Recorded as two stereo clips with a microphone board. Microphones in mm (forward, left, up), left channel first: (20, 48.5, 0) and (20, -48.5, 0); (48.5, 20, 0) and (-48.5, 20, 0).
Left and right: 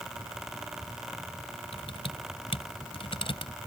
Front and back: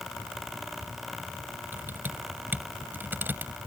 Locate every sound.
1.7 s typing on a keyboard: 110° left